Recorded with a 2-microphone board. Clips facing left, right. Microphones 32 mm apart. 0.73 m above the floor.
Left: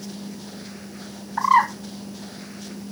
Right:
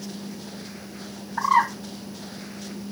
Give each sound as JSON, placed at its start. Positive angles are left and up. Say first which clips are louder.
{"t": 1.4, "sound": "a bird", "louder": "left 3 dB", "side_deg": 25, "distance_m": 2.0}